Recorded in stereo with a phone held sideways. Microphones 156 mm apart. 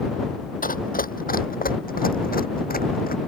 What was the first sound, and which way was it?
Running footsteps, 60° left (ahead or behind).